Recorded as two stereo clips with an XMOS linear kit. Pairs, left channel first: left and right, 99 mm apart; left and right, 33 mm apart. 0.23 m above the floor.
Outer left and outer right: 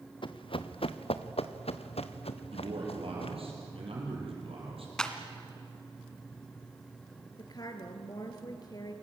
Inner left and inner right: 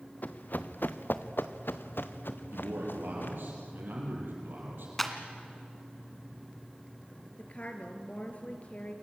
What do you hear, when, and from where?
0.2 s running footsteps: 55° left (ahead or behind), 1.5 m; by 3.4 s 70° left (ahead or behind), 2.5 m
2.5 s a man speaking: 70° right (ahead or behind), 7 m
5.0 s a clap: 5° left (ahead or behind), 2 m
7.4 s a woman speaking: 40° left (ahead or behind), 3.5 m